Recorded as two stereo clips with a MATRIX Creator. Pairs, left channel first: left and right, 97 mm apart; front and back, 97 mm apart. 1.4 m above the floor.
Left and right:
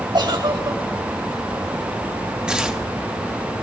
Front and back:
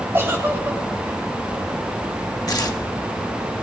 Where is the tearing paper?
15° right, 1.1 m.